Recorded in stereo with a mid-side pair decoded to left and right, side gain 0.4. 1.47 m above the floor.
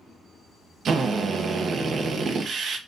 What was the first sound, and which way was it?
A drill, 65° right.